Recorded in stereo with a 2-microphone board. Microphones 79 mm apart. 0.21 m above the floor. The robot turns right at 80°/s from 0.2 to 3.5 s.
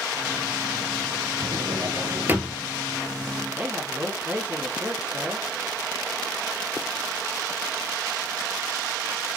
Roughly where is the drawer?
Right.